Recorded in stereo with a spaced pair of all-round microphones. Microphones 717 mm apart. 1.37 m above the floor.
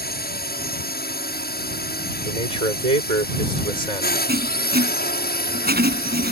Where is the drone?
15° left (ahead or behind).